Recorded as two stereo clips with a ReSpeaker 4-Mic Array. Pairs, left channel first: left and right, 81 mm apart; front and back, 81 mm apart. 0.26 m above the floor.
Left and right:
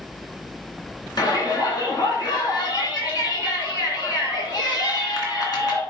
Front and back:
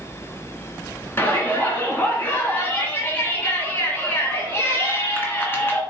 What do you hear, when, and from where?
1.2 s a shout: 60° left, 2.5 m